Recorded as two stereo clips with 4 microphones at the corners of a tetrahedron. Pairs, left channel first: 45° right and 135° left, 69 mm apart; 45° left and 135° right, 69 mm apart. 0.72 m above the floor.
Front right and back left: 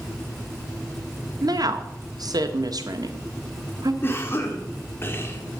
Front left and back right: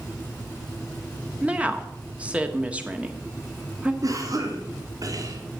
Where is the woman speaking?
155° left, 1.2 m.